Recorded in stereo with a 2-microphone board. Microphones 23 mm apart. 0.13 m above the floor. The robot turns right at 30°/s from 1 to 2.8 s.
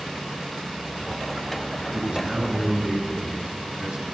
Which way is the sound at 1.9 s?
40° right (ahead or behind).